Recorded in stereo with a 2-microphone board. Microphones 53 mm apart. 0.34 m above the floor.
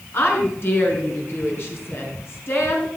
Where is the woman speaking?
45° left (ahead or behind), 5 m.